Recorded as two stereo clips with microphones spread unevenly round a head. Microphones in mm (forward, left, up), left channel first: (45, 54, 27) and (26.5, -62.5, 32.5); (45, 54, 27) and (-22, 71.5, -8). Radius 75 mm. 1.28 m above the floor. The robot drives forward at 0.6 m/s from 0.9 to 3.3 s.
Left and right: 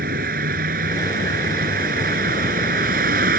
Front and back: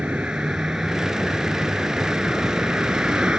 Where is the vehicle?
105° right.